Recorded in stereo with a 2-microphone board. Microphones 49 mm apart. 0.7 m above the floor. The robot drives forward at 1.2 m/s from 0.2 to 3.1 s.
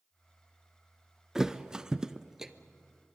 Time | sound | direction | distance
1.4 | a thud | 10° right (ahead or behind) | 0.8 m